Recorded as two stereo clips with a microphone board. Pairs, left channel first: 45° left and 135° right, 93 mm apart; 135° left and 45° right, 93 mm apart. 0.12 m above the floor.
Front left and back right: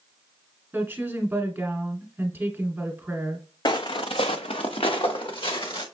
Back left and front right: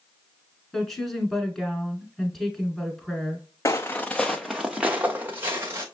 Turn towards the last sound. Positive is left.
turn(degrees=20)